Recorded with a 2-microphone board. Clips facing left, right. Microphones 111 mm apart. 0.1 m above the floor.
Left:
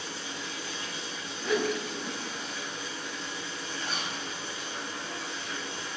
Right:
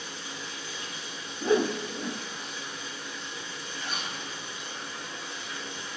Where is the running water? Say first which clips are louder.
Left 2 dB; 80° left, 3 m.